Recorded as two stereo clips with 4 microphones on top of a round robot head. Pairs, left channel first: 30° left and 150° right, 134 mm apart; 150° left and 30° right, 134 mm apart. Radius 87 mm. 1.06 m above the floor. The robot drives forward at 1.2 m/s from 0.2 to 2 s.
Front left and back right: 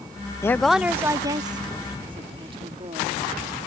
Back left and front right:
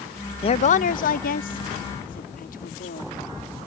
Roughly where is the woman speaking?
Left.